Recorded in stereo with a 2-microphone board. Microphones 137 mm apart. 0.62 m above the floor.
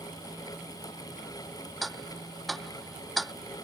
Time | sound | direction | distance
1.8 | ticking | centre (ahead or behind) | ?